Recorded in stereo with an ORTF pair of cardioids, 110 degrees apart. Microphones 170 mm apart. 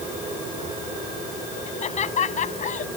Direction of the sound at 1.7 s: 40° left.